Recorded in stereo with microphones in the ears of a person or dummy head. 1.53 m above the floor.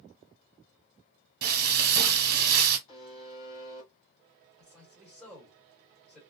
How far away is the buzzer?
About 1.5 m.